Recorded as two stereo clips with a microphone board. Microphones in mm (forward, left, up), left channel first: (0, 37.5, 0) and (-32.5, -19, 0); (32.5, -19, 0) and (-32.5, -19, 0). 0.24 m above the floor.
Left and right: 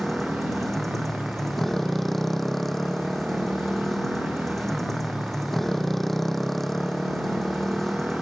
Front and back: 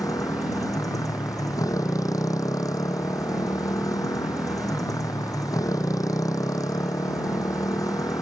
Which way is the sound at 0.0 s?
25° right.